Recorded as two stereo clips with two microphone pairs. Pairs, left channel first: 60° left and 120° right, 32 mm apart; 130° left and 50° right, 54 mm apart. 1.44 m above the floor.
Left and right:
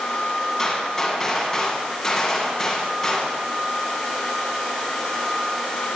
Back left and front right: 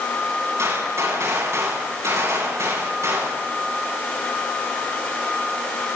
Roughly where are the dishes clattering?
No dishes clattering in this recording.